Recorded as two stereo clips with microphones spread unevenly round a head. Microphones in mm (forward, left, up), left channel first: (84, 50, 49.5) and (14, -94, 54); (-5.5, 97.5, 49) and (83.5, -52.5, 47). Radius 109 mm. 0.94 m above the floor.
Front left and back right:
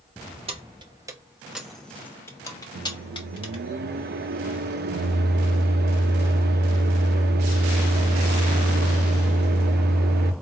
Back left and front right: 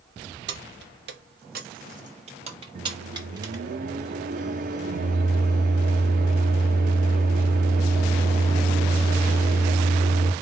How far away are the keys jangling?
About 1.0 m.